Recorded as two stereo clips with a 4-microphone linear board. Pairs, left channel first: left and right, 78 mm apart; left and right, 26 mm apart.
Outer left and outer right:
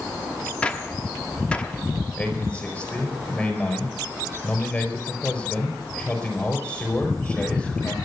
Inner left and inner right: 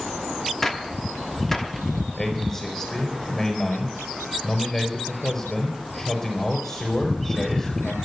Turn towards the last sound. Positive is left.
turn(degrees=15)  # may be behind; listen again after turning